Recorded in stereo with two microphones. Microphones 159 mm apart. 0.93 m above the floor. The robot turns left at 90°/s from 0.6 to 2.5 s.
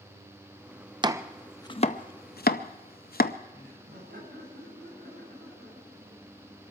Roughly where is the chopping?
Right.